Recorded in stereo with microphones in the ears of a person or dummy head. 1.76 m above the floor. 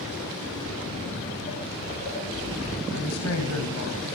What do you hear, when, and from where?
0.6 s footsteps: 15° left (ahead or behind), 5.5 m; by 2.8 s 50° left (ahead or behind), 4.5 m
2.9 s a woman speaking: 75° left (ahead or behind), 2.5 m